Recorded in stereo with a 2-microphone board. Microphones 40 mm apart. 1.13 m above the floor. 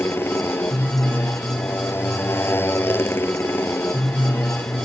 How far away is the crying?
I don't hear crying.